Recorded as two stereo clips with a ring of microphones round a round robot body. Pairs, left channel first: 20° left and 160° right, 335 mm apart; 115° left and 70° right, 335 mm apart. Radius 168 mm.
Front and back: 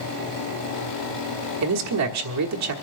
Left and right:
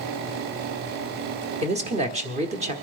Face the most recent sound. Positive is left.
turn(degrees=-135)